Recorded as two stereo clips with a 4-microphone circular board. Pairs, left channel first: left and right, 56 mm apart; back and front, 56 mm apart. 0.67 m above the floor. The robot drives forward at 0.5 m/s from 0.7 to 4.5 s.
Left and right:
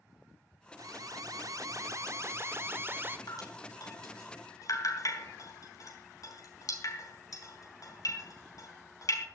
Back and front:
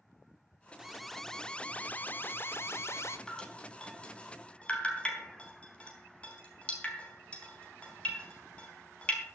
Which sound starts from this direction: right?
An alarm, at 0.8 s.